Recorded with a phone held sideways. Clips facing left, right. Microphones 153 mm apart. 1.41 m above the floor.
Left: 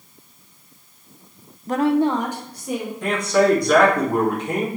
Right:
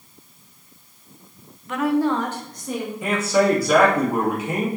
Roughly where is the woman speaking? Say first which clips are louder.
Left 2 dB; left.